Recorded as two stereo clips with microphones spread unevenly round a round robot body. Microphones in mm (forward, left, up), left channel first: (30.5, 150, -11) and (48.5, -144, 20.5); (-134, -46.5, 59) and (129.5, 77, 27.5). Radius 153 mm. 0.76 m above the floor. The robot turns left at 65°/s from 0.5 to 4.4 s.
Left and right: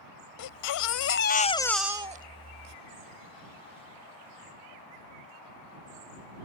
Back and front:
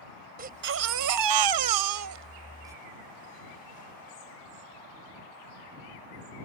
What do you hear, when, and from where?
0.4 s a baby crying: 85° left; by 2.8 s 60° right